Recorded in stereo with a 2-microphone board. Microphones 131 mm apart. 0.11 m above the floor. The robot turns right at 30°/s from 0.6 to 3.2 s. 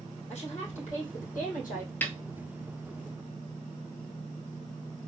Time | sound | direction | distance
0.3 | a woman speaking | 60° left | 3 m
2.0 | a snare drum | 10° left (ahead or behind) | 0.8 m